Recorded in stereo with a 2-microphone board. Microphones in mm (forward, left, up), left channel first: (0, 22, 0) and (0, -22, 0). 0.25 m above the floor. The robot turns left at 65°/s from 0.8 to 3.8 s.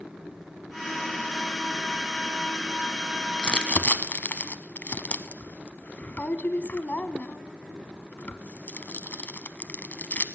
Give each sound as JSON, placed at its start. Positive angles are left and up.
{"t": 3.4, "sound": "crumpling", "side_deg": 20, "distance_m": 0.7}